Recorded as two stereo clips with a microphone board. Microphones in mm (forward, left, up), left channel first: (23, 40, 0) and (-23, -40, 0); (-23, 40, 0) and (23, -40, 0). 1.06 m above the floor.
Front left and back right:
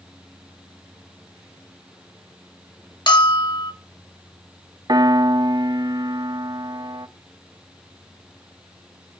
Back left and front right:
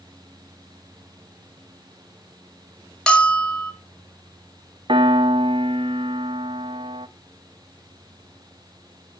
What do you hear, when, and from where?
3.1 s a bell: 40° left, 1.9 m
4.9 s a piano: 80° right, 0.8 m